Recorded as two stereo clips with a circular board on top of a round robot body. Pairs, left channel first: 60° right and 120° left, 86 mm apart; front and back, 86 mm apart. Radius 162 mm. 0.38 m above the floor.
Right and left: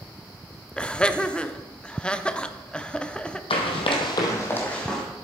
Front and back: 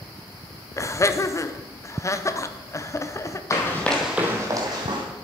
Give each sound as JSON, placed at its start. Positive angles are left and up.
{"t": 0.8, "sound": "laughter", "azimuth_deg": 10, "distance_m": 0.9}
{"t": 3.5, "sound": "running footsteps", "azimuth_deg": -55, "distance_m": 1.3}